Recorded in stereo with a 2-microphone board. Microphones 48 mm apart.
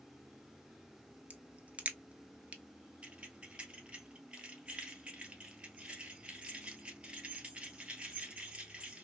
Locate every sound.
1.3 s a crack: 35° right (ahead or behind), 0.6 m
3.0 s keys jangling: 25° right (ahead or behind), 1.2 m